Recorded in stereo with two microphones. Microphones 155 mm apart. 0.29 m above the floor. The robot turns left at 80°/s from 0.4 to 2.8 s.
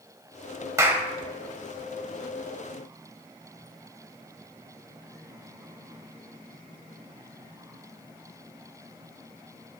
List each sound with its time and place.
0.8 s a clap: 20° right (ahead or behind), 0.9 m; by 1.1 s 5° right (ahead or behind), 0.9 m